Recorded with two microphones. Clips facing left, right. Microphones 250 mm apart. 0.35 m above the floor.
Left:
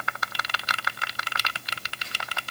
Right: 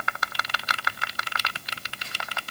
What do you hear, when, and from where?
Only background noise.